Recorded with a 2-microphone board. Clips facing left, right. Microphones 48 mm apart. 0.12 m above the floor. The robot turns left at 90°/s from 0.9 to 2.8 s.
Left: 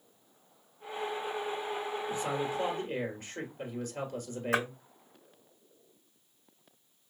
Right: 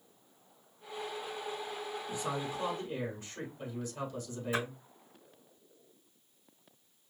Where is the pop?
I don't hear a pop.